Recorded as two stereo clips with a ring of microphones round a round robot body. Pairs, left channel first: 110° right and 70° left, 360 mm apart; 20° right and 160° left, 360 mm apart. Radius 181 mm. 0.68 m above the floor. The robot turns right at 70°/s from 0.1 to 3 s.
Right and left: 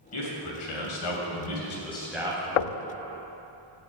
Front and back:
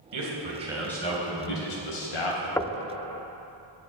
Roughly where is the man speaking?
Behind.